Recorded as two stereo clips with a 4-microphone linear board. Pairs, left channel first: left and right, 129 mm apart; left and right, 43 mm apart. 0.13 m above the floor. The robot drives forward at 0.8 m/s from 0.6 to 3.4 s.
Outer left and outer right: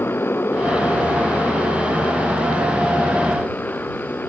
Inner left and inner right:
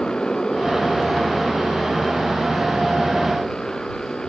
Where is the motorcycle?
15° left (ahead or behind).